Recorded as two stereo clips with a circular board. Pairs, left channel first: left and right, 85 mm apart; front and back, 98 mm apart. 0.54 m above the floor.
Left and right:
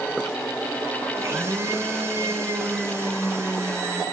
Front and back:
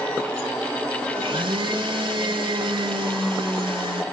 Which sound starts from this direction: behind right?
A blender, at 1.2 s.